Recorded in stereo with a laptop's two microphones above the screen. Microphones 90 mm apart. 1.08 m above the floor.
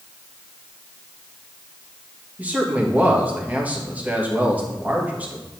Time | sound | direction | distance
2.4 | a man speaking | 15° right (ahead or behind) | 1.5 m